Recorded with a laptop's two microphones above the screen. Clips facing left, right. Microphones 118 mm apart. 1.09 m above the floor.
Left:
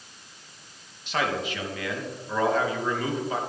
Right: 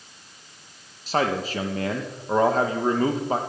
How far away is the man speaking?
About 1.1 m.